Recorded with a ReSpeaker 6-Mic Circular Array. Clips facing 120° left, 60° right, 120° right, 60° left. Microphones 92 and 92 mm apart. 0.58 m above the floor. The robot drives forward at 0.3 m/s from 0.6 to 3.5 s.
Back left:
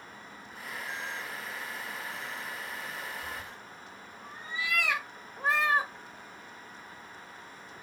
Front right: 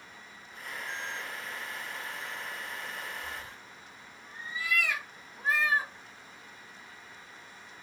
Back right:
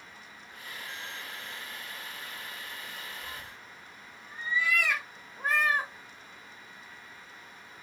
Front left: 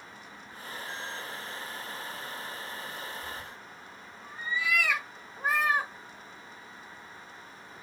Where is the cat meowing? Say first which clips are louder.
Back left 1 dB, front left 3 dB; 145° left, 0.9 m.